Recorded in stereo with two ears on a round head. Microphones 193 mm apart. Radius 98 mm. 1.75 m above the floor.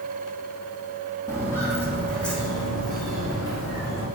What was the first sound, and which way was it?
Footsteps, 15° left (ahead or behind).